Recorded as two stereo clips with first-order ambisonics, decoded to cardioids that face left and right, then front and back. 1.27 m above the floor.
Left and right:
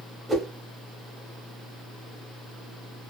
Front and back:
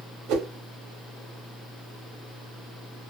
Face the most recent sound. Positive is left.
turn(degrees=-175)